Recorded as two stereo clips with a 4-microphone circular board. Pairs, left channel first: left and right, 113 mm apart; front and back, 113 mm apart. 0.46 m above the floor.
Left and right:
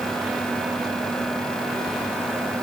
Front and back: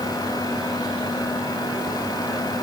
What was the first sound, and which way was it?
Only background noise.